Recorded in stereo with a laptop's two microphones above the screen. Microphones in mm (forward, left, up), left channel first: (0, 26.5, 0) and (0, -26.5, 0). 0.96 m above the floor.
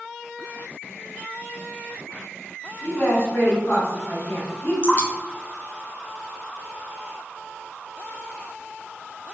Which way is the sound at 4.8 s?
30° left (ahead or behind).